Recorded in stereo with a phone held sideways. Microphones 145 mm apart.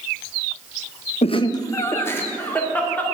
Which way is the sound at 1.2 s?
50° left (ahead or behind).